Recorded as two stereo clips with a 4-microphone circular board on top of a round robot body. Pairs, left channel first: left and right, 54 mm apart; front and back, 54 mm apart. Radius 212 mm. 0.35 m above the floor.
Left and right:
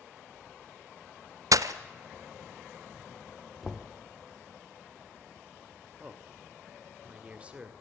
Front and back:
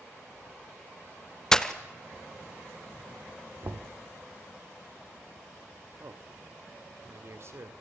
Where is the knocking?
Straight behind, 1.7 m.